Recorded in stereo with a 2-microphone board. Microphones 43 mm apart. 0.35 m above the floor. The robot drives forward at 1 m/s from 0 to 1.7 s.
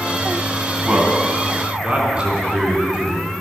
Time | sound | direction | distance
0.8 | a man speaking | 30° right (ahead or behind) | 2 m